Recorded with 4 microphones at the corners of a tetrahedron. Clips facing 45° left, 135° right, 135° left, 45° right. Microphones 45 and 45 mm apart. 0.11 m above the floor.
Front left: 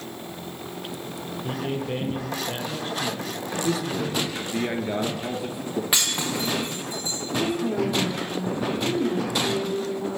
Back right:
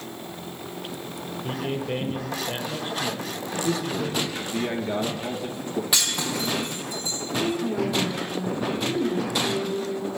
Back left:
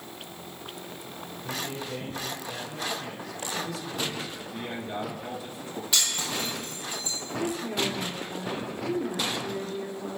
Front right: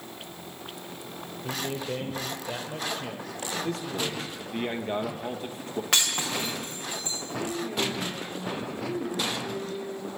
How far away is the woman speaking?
About 3.5 m.